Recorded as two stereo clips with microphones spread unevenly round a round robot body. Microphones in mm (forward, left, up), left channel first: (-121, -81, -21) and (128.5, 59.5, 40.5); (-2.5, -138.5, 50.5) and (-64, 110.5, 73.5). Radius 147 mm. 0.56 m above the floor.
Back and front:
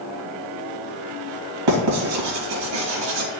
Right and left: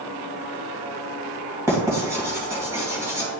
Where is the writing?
20° left, 3 m.